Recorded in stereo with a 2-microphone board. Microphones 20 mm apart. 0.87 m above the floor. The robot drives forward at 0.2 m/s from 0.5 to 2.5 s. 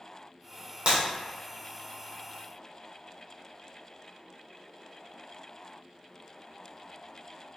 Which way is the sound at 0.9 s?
55° right (ahead or behind).